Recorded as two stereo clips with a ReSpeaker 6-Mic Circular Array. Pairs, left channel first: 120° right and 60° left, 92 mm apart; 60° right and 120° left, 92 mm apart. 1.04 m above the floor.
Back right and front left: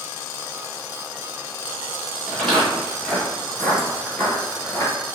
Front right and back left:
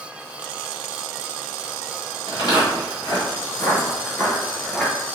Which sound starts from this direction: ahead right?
Footsteps, at 2.3 s.